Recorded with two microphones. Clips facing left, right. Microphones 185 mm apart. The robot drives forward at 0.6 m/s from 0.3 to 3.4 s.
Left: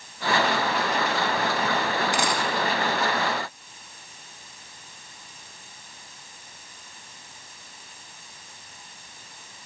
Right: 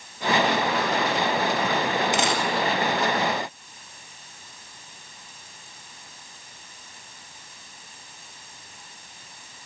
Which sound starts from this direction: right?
A dropped coin, at 2.1 s.